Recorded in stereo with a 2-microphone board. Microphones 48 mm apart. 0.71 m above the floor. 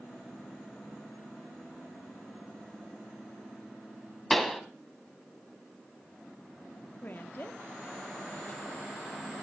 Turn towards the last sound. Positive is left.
turn(degrees=45)  # may be behind; listen again after turning